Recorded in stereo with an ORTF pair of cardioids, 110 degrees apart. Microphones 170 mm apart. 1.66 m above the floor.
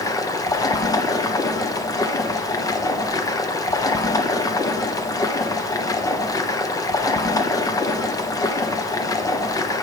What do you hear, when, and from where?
0.0 s running water: 20° left, 0.9 m